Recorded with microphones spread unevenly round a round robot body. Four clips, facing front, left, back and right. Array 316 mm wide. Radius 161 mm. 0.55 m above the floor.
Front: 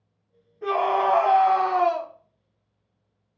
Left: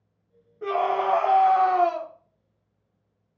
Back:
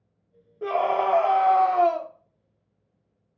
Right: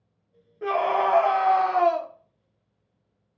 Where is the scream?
170° right, 0.9 m.